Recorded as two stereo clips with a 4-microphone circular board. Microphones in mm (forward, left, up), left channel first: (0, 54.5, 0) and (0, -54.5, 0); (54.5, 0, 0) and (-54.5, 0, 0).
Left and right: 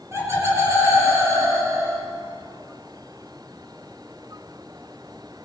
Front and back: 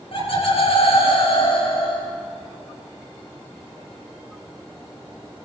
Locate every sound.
0.1 s laughter: 25° right, 6 m; by 2.0 s 30° right, 4.5 m